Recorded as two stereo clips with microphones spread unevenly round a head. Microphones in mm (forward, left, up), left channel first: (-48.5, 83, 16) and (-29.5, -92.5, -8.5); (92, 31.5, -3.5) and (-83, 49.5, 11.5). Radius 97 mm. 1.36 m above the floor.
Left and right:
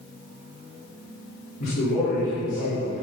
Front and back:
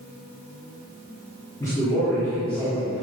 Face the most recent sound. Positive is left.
turn(degrees=85)